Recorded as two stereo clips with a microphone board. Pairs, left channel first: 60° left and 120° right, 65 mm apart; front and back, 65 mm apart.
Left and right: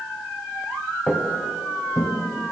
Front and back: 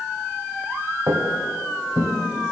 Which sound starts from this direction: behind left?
Footsteps, at 1.1 s.